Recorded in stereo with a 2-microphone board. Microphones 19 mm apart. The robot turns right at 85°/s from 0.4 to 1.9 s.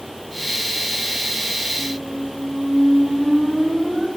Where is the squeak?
65° right (ahead or behind), 6 m; by 4.1 s 55° right (ahead or behind), 6 m.